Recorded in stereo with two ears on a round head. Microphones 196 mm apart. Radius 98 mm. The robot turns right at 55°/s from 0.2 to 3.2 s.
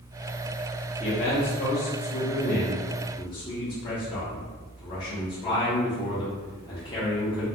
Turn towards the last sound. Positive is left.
turn(degrees=150)